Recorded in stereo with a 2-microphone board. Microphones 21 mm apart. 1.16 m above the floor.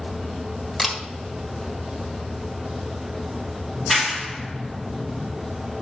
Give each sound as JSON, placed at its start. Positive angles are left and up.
{"t": 0.8, "sound": "a camera shutter", "side_deg": -15, "distance_m": 1.6}
{"t": 3.7, "sound": "a clap", "side_deg": -5, "distance_m": 1.7}